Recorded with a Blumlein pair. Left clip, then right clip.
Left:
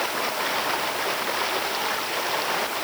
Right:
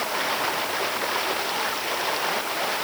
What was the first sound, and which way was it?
Only background noise.